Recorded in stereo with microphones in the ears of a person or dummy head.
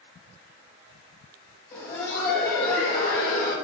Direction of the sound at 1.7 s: 25° left (ahead or behind).